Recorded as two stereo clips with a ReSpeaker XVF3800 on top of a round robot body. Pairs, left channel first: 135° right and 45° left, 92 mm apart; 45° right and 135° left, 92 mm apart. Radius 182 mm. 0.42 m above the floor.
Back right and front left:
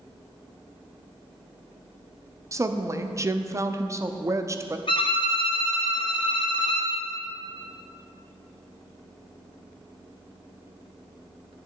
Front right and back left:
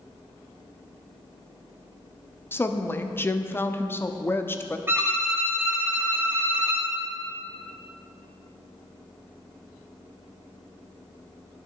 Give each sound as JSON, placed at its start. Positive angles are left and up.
{"t": 2.5, "sound": "a woman speaking", "azimuth_deg": 5, "distance_m": 1.1}
{"t": 4.9, "sound": "a violin", "azimuth_deg": -160, "distance_m": 2.5}